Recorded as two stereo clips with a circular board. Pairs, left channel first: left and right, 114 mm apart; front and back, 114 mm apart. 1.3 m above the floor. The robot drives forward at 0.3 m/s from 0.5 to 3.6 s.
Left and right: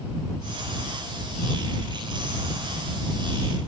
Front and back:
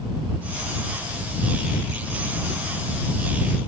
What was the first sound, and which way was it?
Only background noise.